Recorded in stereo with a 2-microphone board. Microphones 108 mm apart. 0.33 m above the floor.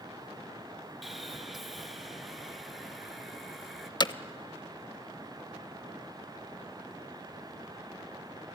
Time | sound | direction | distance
1.0 | sawing | centre (ahead or behind) | 1.3 m
4.0 | hammering | 40° left (ahead or behind) | 0.6 m